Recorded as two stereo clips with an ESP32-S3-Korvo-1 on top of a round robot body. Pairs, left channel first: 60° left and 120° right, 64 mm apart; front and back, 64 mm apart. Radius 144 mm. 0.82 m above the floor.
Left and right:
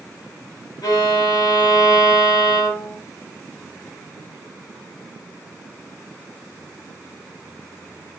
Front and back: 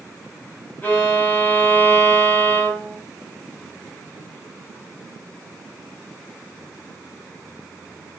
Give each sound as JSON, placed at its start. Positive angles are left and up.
{"t": 0.8, "sound": "a violin", "azimuth_deg": 60, "distance_m": 2.5}